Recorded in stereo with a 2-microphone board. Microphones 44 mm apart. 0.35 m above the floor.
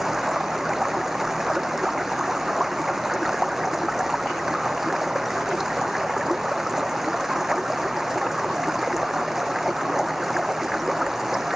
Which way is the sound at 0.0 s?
10° right (ahead or behind).